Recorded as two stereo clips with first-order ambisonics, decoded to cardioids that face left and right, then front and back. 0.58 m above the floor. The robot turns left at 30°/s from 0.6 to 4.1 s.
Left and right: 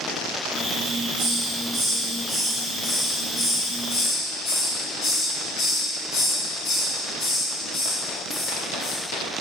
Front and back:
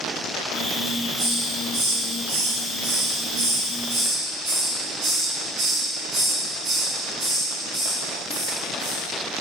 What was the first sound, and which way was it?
A hiss, 120° right.